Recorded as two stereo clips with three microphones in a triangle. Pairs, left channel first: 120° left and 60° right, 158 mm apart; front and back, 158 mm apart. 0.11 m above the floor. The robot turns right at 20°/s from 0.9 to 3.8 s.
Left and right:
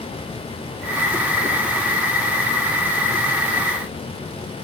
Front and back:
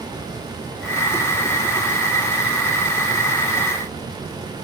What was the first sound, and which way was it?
Only background noise.